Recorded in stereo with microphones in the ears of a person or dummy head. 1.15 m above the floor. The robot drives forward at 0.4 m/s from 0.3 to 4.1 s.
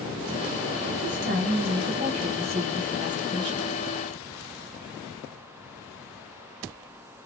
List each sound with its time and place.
1.0 s a woman speaking: 45° right (ahead or behind), 0.8 m; by 3.8 s 25° right (ahead or behind), 1.5 m